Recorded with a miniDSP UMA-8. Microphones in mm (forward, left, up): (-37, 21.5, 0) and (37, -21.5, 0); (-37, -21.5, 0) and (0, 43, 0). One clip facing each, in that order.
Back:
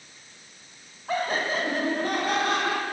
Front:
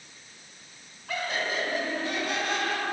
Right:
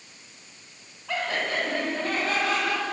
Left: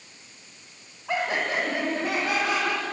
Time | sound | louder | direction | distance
1.1 | laughter | back 4 dB, left 2 dB | 120° left | 1.5 m